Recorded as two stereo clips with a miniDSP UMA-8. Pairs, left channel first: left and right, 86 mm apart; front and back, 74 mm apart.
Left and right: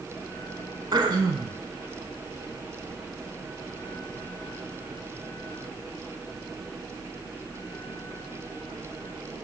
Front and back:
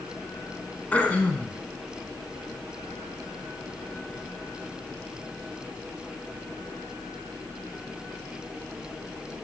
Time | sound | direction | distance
0.9 | throat clearing | 70° right | 0.9 m